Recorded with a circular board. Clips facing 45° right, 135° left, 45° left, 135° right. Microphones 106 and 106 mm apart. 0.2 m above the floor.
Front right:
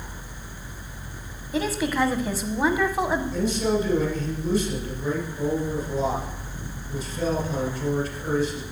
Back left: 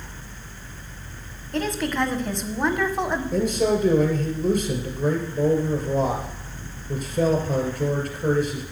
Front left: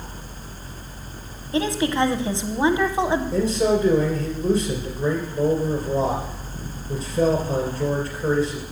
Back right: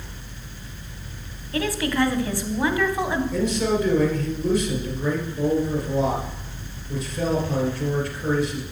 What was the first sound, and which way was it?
A woman speaking, 30° left.